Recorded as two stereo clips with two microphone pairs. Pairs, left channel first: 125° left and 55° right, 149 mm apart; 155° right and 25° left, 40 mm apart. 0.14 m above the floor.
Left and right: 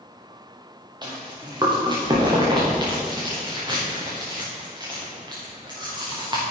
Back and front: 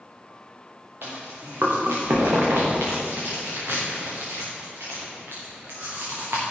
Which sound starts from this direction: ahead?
Chewing, at 1.0 s.